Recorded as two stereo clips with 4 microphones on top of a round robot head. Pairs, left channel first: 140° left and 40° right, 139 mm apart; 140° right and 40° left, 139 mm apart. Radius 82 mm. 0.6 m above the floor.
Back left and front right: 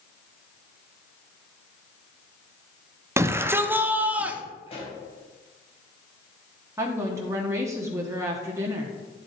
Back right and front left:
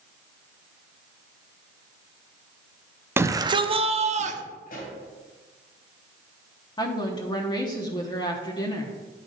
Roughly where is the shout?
Ahead.